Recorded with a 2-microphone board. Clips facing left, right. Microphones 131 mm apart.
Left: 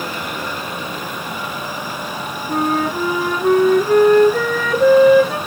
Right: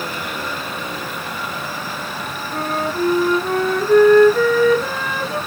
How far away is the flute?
About 3.5 m.